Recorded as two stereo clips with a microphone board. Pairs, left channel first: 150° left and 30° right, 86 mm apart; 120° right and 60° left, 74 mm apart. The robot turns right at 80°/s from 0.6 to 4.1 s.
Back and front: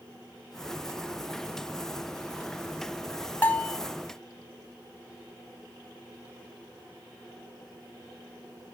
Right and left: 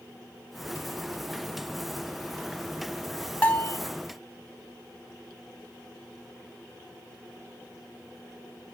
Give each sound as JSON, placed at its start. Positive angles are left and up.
{"t": 3.4, "sound": "a bell", "azimuth_deg": -165, "distance_m": 0.8}